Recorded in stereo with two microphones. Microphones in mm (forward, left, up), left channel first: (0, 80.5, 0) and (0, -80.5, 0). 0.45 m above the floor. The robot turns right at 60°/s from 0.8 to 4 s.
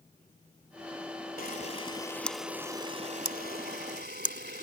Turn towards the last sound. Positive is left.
turn(degrees=-80)